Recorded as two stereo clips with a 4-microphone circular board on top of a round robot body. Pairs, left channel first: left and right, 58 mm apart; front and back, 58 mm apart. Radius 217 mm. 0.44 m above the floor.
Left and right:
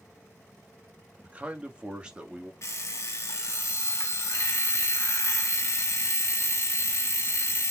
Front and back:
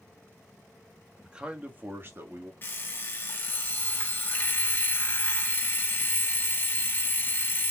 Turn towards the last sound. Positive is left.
turn(degrees=55)